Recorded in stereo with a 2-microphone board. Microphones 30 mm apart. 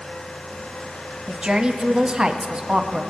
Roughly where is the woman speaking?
Right.